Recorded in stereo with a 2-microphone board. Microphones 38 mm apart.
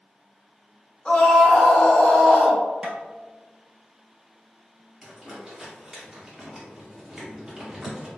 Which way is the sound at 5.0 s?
20° right (ahead or behind).